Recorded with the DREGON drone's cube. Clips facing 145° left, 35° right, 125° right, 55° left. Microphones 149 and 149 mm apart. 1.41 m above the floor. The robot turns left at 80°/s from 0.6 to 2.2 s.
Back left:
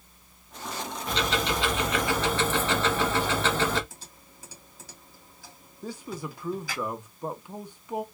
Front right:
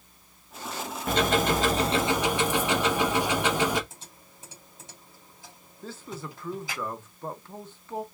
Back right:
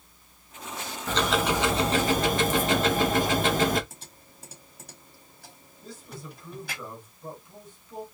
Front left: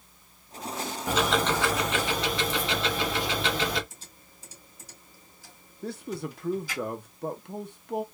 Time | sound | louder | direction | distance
1.1 | ticking | front right 5 dB, even | 15° right | 0.7 m
3.9 | typing on a keyboard | even, back right 3 dB | 100° right | 2 m
5.8 | a man speaking | back left 3 dB, front left 9 dB | 70° left | 0.7 m